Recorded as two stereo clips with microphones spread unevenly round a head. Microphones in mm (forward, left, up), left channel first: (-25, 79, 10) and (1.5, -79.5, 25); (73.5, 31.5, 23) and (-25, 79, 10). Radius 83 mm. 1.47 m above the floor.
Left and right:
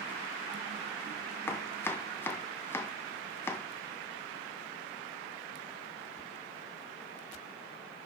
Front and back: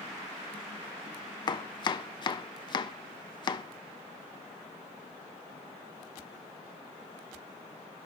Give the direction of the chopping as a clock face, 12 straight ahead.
11 o'clock.